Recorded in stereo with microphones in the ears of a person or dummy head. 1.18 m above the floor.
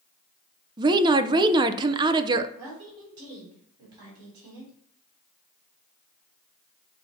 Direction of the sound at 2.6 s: 20° right (ahead or behind).